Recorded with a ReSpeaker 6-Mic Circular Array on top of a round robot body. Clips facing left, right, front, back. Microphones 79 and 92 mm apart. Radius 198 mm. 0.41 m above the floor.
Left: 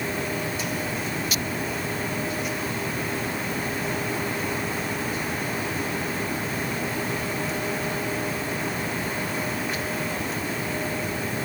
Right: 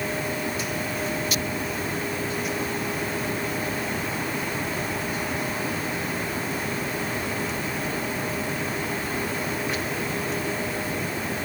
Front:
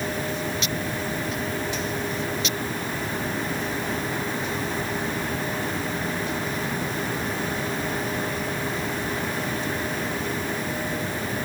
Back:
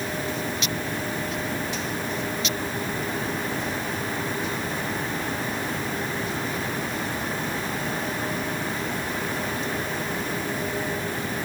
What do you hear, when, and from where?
Only background noise.